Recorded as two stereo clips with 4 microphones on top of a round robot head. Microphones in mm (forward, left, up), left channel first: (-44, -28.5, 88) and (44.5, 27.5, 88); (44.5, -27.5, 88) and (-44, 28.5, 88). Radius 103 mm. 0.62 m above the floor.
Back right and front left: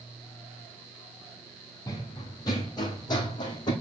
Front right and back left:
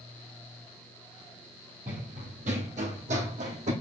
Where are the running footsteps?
155° left, 1.5 m; by 3.7 s 160° left, 2.5 m.